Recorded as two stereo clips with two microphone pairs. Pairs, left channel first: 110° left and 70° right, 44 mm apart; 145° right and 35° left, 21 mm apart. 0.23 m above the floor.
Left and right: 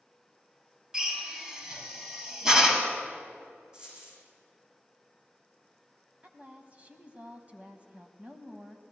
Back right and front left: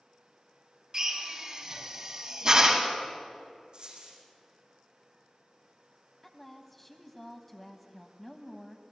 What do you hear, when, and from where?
0.9 s a drill: straight ahead, 1.9 m
3.7 s a dropped coin: 5° right, 5 m
6.2 s a woman speaking: 70° right, 1.2 m